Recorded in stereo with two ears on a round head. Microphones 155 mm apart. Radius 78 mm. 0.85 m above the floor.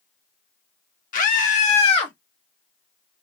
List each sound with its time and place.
1.1 s a scream: 50° left (ahead or behind), 1.2 m; by 2.1 s 30° left (ahead or behind), 1.4 m